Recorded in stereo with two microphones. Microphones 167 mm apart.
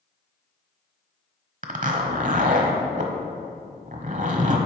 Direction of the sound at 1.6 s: 50° right (ahead or behind).